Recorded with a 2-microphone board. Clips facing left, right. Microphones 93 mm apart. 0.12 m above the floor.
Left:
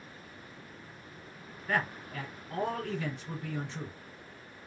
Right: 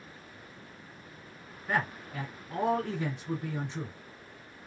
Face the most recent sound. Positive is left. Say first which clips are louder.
# right 1 dB
turn(degrees=-15)  # may be behind; listen again after turning